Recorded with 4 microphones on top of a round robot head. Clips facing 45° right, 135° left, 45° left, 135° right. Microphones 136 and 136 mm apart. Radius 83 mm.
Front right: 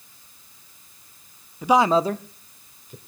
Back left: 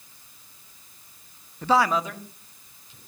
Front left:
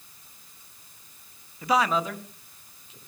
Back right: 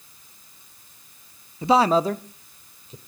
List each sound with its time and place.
1.6 s a man speaking: 120° right, 0.6 m; by 3.0 s 80° right, 1.8 m